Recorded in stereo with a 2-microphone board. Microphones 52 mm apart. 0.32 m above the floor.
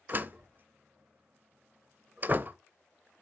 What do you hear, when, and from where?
0.1 s a door slam: 35° right (ahead or behind), 0.6 m